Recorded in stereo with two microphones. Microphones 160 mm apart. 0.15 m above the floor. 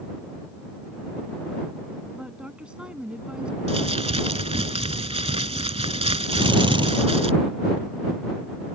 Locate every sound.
2.1 s a woman speaking: 5° right (ahead or behind)
3.7 s crumpling: 40° right (ahead or behind)
6.3 s a drill: 30° right (ahead or behind)